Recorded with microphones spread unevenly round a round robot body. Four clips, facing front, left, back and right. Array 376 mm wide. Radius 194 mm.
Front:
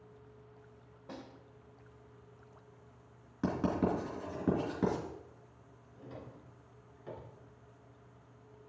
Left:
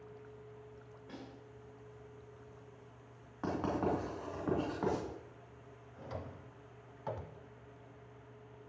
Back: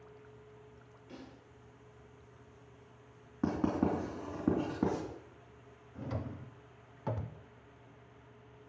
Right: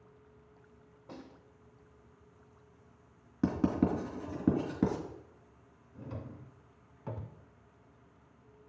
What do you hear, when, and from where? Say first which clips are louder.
1.1 s a snare drum: right 2 dB, front 3 dB; straight ahead, 2.5 m
3.4 s writing: right 5 dB, back 1 dB; 100° right, 2.5 m
6.0 s a drawer: right 1 dB, back 8 dB; 160° right, 0.6 m